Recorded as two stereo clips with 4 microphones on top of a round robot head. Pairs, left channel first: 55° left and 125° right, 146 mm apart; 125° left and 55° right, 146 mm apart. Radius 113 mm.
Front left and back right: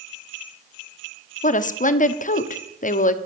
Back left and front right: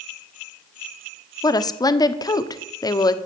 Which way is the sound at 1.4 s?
65° left.